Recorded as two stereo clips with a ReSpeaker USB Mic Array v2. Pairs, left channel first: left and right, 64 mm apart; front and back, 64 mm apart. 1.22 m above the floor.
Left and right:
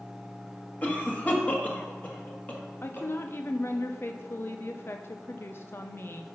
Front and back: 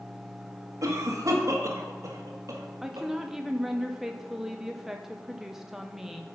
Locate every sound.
0.8 s a cough: 150° left, 1.6 m
2.8 s a woman speaking: 100° left, 0.5 m